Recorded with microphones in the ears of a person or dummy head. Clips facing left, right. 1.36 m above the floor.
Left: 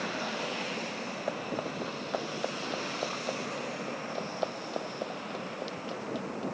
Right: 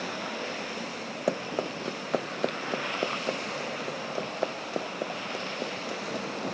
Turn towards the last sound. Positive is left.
turn(degrees=-20)  # may be behind; listen again after turning